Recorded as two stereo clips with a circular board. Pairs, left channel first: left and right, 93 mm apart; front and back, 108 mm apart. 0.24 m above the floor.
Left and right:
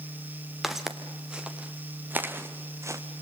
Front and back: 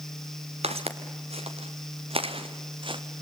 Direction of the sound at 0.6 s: Straight behind.